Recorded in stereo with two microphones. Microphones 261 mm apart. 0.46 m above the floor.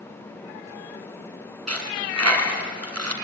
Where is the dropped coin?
75° right (ahead or behind), 2.5 m.